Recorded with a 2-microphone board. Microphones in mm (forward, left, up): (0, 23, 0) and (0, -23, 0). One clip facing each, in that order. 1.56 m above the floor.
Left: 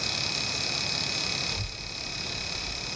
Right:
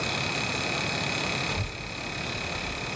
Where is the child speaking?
70° right (ahead or behind), 1.8 m.